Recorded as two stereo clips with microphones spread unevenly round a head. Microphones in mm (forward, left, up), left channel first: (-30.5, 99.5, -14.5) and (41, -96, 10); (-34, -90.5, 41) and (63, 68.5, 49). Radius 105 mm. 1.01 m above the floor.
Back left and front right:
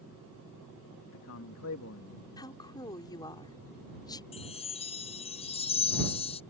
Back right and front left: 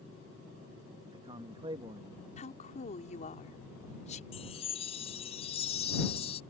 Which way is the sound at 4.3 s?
175° left.